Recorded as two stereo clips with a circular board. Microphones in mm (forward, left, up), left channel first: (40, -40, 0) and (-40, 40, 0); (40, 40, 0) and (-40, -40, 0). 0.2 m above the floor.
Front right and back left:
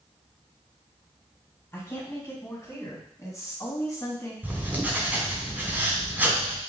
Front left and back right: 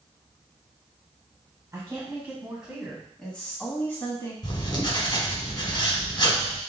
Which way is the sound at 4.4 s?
65° left.